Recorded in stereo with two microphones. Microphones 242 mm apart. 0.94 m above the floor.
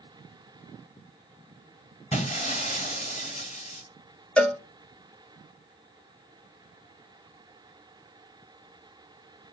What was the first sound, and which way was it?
Breaking glass, 25° left (ahead or behind).